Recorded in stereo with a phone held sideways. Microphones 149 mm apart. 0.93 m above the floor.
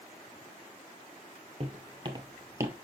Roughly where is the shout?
I don't hear a shout.